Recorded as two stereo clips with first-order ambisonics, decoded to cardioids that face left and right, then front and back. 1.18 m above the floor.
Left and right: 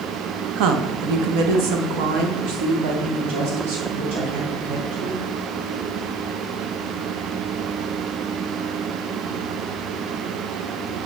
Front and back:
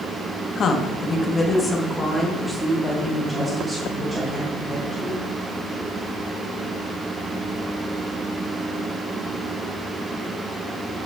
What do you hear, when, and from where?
0.6 s a woman speaking: 60° right, 0.9 m; by 5.2 s 110° right, 3.5 m